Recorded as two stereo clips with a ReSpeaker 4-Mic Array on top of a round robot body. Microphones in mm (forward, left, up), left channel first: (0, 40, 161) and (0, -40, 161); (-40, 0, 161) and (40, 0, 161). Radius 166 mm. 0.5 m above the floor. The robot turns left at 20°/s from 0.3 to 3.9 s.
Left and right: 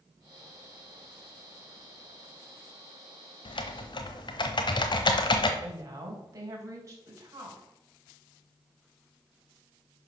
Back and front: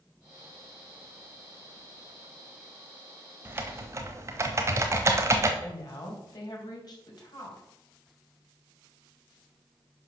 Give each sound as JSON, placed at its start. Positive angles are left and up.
{"t": 3.5, "sound": "typing on a keyboard", "azimuth_deg": 65, "distance_m": 1.0}
{"t": 5.6, "sound": "a woman speaking", "azimuth_deg": -145, "distance_m": 3.0}